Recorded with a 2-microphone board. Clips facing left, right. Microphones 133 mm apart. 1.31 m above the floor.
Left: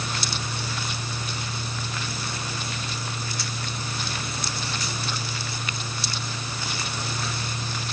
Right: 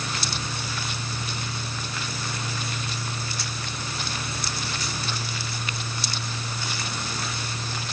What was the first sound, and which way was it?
Only background noise.